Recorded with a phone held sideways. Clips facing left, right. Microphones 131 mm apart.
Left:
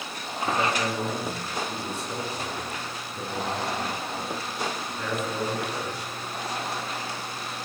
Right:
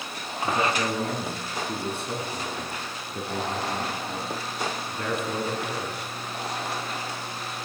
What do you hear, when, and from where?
0.4 s a man speaking: 60° right (ahead or behind), 8.5 m